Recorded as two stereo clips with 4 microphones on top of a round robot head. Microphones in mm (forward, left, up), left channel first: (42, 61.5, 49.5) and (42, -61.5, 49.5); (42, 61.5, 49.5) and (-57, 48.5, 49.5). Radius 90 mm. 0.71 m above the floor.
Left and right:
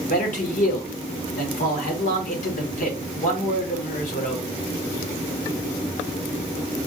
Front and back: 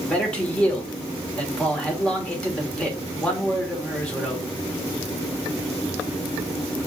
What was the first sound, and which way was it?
A man speaking, 85° left.